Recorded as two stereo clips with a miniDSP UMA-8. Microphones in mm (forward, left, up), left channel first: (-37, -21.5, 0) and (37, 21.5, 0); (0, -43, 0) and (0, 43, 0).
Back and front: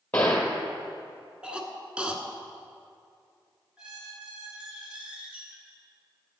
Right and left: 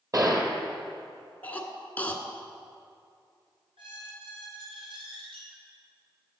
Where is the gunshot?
135° left, 1.4 m.